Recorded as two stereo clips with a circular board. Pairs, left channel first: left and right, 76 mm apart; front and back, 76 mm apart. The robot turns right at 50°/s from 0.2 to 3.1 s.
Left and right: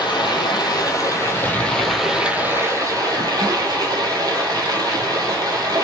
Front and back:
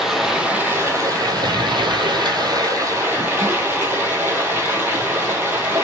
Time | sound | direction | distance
0.0 | running water | 95° left | 1.0 m